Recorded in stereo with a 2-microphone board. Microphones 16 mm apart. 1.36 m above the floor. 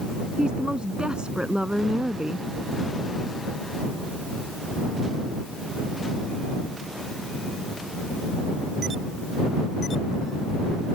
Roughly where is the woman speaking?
Right.